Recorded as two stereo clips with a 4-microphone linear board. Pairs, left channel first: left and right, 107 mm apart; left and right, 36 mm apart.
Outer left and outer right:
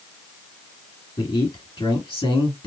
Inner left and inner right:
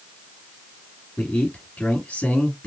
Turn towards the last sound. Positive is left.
turn(degrees=55)  # may be behind; listen again after turning